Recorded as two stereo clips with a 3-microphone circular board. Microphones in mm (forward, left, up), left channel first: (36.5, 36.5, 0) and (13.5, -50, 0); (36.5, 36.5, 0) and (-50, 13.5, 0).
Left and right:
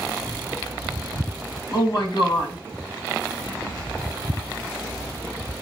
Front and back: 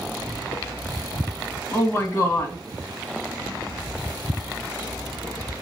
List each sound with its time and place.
1.7 s a woman speaking: 70° left, 1.6 m